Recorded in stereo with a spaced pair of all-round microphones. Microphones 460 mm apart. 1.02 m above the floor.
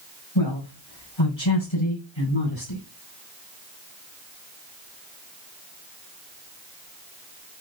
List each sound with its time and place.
0.3 s a man speaking: 80° left, 9 m